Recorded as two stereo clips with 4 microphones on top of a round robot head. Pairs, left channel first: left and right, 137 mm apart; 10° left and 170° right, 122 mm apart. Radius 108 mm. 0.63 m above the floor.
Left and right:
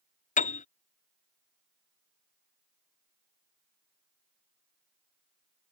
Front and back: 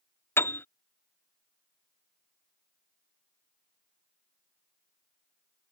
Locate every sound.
0.4 s a piano: 80° left